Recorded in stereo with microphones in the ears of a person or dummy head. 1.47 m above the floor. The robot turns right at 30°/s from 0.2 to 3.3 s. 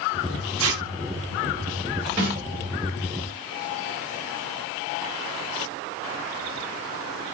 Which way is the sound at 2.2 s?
20° right (ahead or behind).